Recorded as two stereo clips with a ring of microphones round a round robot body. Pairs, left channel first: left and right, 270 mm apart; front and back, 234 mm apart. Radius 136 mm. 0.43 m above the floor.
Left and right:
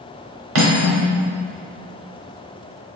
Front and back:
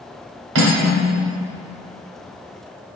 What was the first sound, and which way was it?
Cutlery clinking, 130° right.